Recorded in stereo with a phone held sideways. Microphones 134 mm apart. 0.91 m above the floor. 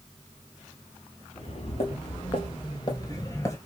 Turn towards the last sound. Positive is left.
turn(degrees=20)  # may be behind; listen again after turning